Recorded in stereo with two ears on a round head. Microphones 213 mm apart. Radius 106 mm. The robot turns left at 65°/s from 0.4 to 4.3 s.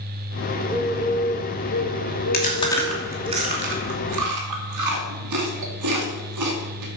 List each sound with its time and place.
0.6 s a bird: 160° right, 0.8 m; by 3.3 s 20° left, 0.8 m
2.3 s chewing: 40° left (ahead or behind), 2.5 m; by 6.9 s 85° right, 2.5 m